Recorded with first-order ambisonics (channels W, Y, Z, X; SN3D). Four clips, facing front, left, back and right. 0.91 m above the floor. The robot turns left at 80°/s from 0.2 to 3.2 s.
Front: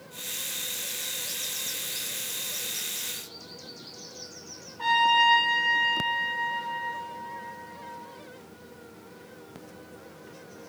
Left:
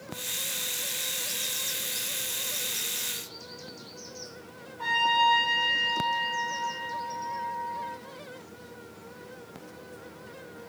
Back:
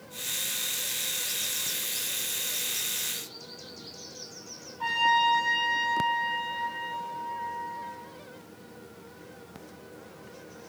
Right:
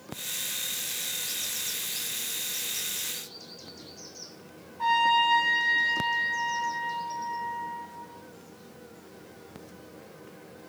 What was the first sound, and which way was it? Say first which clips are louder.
A trumpet: right 1 dB, front 3 dB; 5° right.